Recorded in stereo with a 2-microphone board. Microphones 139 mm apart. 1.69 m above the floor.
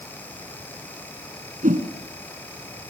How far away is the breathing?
No breathing in this recording.